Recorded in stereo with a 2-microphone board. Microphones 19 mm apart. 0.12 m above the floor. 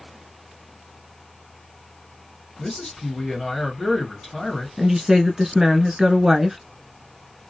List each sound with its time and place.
2.6 s a man speaking: 30° left (ahead or behind), 2 m
4.8 s a woman speaking: 30° right (ahead or behind), 1.2 m